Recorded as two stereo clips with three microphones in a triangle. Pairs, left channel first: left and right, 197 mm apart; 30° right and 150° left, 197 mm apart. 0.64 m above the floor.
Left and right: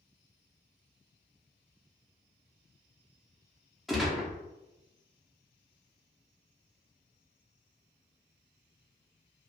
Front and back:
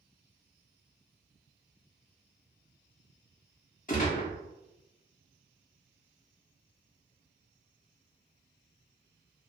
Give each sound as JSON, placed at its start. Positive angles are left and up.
{"t": 3.9, "sound": "a gunshot", "azimuth_deg": 0, "distance_m": 1.3}